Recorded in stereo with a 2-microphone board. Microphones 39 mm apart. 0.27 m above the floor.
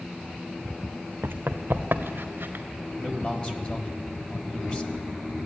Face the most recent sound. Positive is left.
turn(degrees=30)  # may be behind; listen again after turning